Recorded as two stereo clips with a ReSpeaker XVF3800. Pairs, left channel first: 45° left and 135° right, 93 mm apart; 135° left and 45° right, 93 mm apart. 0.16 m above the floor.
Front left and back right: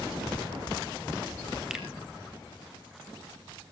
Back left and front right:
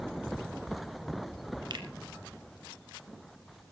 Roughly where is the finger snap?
Ahead right.